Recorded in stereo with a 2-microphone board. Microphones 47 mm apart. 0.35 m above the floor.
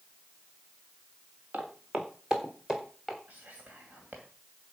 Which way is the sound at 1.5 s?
35° right (ahead or behind).